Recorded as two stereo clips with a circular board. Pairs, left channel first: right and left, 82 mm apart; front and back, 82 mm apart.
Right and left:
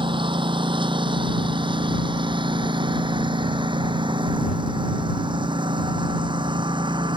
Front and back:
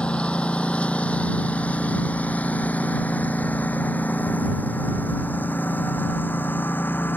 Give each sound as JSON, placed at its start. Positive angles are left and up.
{"t": 0.0, "sound": "a lawn mower", "azimuth_deg": 80}